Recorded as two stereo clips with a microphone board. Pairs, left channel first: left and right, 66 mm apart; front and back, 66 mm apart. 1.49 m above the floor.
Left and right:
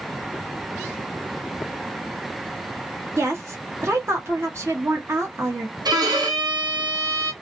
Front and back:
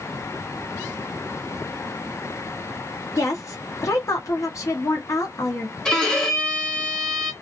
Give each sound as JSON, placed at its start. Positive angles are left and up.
{"t": 3.2, "sound": "a woman speaking", "azimuth_deg": -40, "distance_m": 1.1}
{"t": 5.8, "sound": "a violin", "azimuth_deg": -80, "distance_m": 0.8}